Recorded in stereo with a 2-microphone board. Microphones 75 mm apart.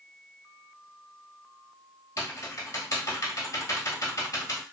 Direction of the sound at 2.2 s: 45° left (ahead or behind).